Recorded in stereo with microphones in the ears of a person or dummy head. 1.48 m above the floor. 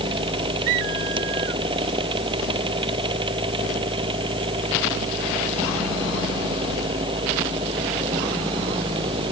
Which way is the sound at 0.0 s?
30° right (ahead or behind).